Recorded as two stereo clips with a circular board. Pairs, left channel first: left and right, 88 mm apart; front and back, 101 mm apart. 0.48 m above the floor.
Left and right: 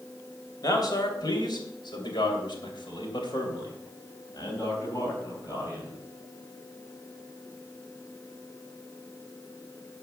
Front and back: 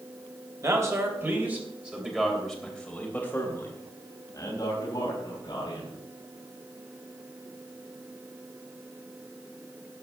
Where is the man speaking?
125° left, 3 m; by 6.0 s 40° left, 4.5 m.